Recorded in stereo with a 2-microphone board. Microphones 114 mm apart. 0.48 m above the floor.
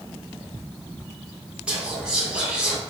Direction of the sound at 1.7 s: 10° right (ahead or behind).